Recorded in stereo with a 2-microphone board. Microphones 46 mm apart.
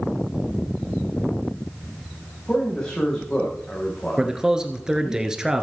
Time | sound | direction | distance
2.5 | a man speaking | 15° left (ahead or behind) | 6 m
4.2 | a man speaking | 15° right (ahead or behind) | 1.6 m